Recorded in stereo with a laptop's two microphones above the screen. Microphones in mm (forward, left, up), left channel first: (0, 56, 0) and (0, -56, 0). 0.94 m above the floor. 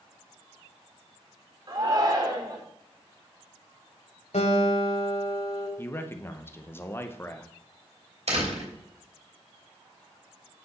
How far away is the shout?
About 3 m.